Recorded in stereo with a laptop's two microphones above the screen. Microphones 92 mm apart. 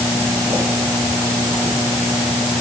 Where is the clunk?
No clunk in this recording.